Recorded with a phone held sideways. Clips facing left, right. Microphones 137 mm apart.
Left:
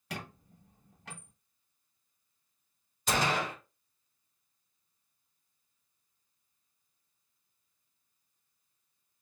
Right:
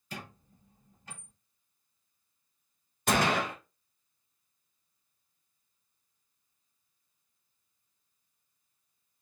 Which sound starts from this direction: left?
A squeak, at 0.1 s.